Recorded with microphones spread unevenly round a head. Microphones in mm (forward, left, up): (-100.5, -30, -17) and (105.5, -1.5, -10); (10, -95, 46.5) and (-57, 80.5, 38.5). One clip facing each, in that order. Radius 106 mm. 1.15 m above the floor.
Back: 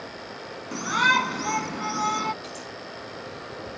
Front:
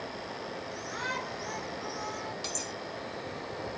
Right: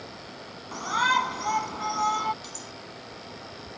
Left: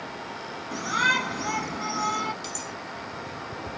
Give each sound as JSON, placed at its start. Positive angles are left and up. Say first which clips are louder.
{"t": 0.7, "sound": "a shout", "louder": "back 8 dB, right 1 dB", "azimuth_deg": 175}
{"t": 2.4, "sound": "cutlery clinking", "louder": "back 1 dB, left 6 dB", "azimuth_deg": 45}